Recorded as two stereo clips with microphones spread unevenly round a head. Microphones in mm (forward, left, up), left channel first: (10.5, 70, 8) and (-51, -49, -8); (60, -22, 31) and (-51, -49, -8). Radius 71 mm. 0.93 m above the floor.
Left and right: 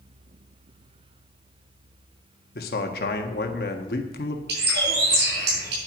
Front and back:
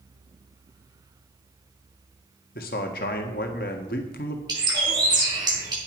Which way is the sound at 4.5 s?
110° right.